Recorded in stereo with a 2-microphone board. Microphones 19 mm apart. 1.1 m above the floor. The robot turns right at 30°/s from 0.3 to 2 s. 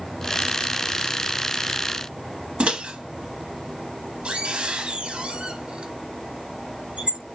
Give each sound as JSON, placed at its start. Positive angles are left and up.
{"t": 2.6, "sound": "a microwave", "side_deg": -70, "distance_m": 0.7}